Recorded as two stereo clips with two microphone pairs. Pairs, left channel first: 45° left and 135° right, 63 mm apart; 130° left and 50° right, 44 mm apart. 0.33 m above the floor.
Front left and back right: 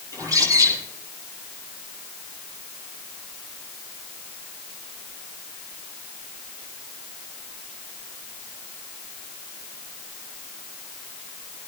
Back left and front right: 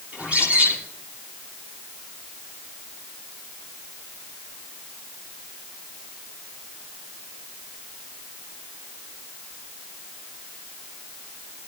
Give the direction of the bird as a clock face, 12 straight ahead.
4 o'clock.